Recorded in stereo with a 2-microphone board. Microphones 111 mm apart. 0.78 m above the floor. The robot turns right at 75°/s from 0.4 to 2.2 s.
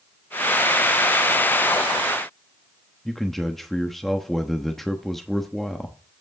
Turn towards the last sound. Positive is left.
turn(degrees=0)  # may be behind; listen again after turning